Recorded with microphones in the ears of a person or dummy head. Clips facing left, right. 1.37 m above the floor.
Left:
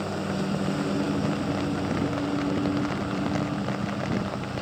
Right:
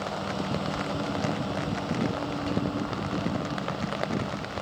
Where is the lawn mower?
25° left (ahead or behind).